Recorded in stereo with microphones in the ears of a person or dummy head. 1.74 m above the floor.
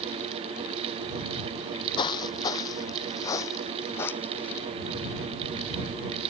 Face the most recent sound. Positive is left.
turn(degrees=10)  # may be behind; listen again after turning